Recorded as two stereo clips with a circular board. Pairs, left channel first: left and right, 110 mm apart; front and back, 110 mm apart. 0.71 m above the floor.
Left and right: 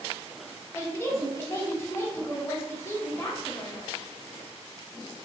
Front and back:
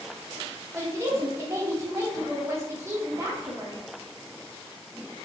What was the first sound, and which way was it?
A woman speaking, 140° left.